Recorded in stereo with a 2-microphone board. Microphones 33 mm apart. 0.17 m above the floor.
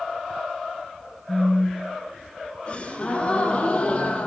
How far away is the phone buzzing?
About 3.5 m.